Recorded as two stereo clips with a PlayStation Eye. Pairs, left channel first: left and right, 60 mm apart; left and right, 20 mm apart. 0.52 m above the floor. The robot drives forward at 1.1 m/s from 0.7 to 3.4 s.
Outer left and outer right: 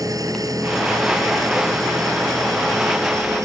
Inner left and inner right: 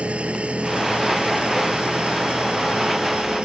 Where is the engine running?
85° right; by 3.5 s 65° right (ahead or behind).